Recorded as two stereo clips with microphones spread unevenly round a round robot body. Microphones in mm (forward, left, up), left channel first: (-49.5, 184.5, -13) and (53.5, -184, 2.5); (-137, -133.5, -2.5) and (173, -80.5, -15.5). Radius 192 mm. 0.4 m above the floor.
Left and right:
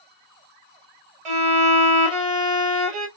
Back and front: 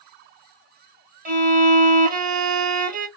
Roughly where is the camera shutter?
I don't hear a camera shutter.